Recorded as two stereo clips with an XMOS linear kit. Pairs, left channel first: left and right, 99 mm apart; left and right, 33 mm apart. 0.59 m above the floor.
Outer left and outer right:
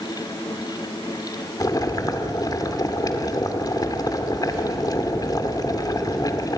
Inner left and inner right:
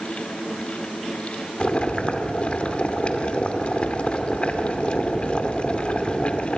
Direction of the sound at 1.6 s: 40° left (ahead or behind).